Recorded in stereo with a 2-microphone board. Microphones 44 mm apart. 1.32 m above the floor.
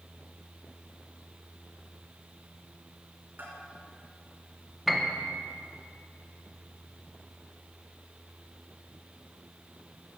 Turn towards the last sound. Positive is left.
turn(degrees=-5)  # may be behind; listen again after turning